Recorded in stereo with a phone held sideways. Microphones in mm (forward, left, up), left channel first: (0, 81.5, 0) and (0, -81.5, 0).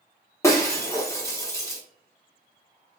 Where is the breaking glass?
20° left (ahead or behind), 0.7 m.